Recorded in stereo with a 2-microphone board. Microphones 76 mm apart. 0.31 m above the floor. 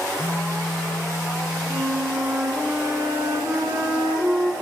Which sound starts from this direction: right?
A flute, at 1.7 s.